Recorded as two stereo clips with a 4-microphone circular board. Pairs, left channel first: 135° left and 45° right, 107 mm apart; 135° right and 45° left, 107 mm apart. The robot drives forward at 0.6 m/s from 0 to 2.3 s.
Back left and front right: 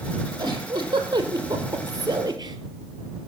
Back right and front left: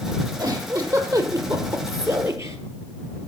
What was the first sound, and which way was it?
A giggle, 5° right.